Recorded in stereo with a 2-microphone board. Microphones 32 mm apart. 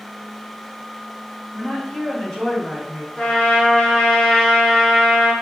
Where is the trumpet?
25° left (ahead or behind), 1.4 m.